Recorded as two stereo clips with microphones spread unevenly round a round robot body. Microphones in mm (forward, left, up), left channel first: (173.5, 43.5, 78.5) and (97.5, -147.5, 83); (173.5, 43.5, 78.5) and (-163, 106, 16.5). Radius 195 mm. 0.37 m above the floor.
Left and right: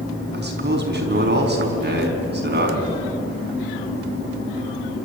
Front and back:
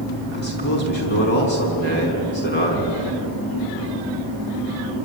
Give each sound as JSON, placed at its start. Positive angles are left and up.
{"t": 0.3, "sound": "a man speaking", "azimuth_deg": -75, "distance_m": 5.0}